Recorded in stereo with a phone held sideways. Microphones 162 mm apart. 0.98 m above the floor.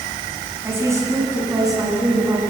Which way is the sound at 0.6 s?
15° right (ahead or behind).